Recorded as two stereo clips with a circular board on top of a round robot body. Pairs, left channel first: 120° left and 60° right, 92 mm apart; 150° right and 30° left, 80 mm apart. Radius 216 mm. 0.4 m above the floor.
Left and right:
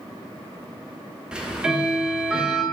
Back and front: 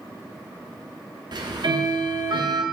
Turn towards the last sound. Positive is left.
turn(degrees=20)